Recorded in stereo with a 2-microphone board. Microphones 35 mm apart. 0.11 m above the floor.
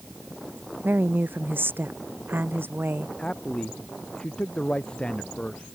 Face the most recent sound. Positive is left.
turn(degrees=25)  # may be behind; listen again after turning